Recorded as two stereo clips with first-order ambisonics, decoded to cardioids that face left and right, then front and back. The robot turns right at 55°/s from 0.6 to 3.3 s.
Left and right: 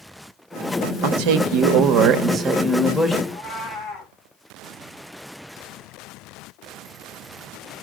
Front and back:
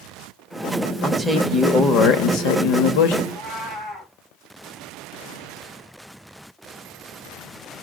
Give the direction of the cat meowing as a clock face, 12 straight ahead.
10 o'clock.